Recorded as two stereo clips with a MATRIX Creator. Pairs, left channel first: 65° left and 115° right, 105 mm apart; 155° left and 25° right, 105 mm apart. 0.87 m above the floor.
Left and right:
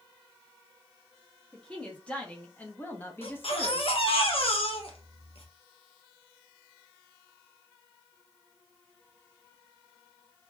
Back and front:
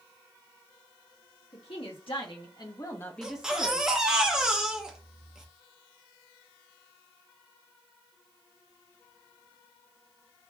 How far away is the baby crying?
About 1.0 m.